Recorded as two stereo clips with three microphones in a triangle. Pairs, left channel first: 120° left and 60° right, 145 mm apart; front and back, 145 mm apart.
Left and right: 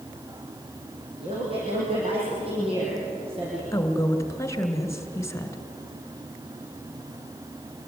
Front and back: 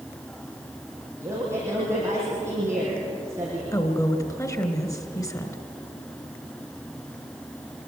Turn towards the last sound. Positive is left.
turn(degrees=60)